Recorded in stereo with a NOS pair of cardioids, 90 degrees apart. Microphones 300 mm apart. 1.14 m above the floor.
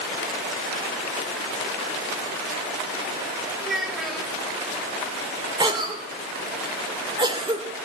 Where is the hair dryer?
I don't hear a hair dryer.